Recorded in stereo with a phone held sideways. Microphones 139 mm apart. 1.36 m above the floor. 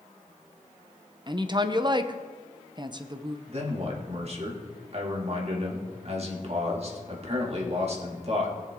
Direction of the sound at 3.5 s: 50° right (ahead or behind).